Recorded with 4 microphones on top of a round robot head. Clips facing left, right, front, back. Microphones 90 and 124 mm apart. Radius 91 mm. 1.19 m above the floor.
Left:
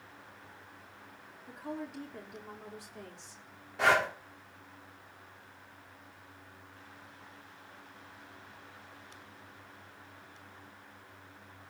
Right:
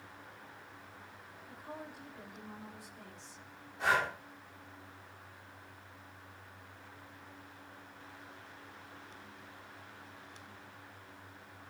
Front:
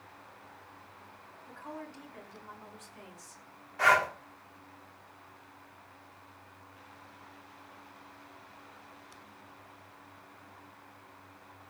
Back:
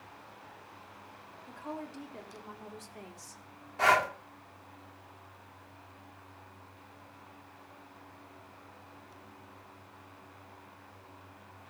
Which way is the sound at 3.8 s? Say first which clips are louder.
Left 4 dB, even; 120° left.